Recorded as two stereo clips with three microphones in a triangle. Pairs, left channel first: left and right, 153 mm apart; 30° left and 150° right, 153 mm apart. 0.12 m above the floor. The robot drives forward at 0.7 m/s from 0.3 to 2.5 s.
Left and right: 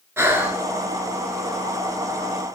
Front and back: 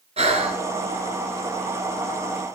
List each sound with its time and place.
0.2 s breathing: 160° right, 1.4 m